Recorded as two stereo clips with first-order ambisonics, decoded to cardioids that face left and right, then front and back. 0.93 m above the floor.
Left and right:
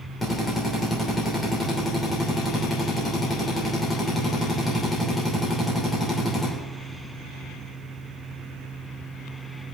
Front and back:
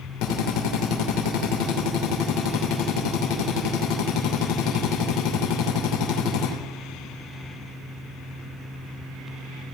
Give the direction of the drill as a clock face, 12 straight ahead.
11 o'clock.